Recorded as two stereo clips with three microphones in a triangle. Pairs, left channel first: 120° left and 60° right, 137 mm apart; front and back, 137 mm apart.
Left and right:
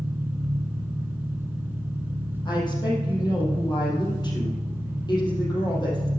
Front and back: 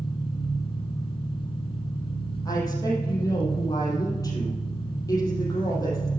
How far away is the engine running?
About 1.1 m.